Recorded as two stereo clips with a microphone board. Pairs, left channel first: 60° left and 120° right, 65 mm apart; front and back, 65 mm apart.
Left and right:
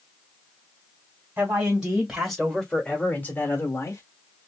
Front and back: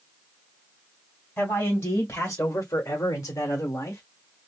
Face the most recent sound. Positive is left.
turn(degrees=45)